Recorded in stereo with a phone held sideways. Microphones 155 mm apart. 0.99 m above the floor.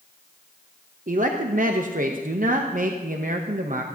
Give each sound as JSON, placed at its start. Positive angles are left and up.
{"t": 1.1, "sound": "a man speaking", "side_deg": -60, "distance_m": 0.8}